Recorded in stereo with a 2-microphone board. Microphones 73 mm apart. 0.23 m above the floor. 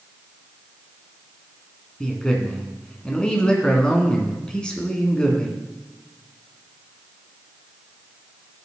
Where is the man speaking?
10° left (ahead or behind), 2.5 m.